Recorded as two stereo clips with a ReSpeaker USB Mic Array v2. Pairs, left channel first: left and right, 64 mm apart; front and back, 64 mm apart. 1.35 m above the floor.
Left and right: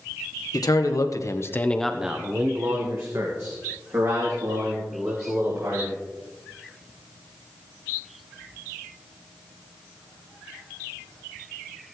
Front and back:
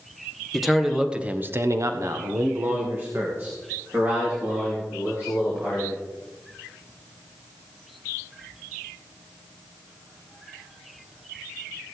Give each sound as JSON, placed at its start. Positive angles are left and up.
{"t": 0.5, "sound": "a man speaking", "azimuth_deg": 90, "distance_m": 1.6}